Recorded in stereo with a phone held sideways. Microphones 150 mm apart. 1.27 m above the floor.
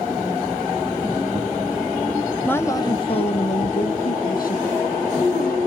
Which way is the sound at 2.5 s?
10° left (ahead or behind).